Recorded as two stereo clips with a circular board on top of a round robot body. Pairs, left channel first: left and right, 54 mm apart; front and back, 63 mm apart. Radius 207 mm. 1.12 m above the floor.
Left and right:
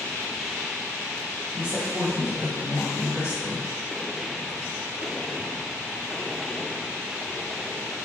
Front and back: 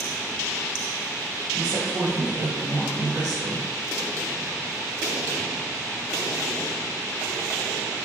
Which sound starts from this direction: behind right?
A woman speaking, at 1.5 s.